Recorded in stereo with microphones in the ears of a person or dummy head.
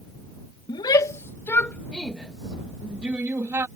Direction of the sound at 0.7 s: 25° left (ahead or behind).